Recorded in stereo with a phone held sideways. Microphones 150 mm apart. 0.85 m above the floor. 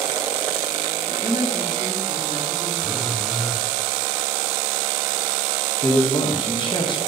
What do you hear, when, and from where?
1.1 s a woman speaking: 45° right (ahead or behind), 2.5 m
2.8 s a phone buzzing: centre (ahead or behind), 0.7 m
5.8 s a man speaking: 30° left (ahead or behind), 1.1 m